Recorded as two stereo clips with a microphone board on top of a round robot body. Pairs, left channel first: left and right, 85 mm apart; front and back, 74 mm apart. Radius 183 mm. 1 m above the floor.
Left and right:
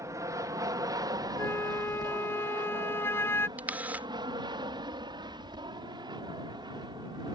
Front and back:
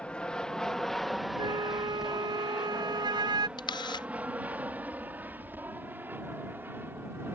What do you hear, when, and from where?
0.0 s an aircraft: 65° right; by 7.3 s 120° right
1.4 s a flute: 155° left
3.6 s a camera shutter: 15° right